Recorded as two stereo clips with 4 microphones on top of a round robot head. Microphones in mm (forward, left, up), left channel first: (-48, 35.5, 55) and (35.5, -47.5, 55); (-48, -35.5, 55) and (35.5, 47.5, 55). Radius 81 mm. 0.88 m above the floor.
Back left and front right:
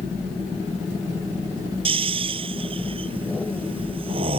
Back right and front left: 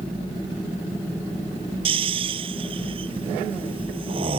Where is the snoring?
Straight ahead.